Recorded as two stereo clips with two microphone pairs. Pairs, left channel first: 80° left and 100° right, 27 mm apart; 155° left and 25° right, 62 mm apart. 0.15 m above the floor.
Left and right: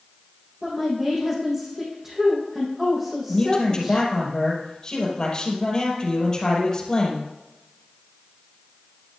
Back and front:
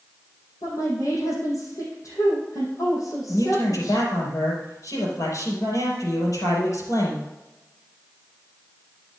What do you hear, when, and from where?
0.6 s a woman speaking: 175° right, 4 m
3.3 s a man speaking: 140° left, 4.5 m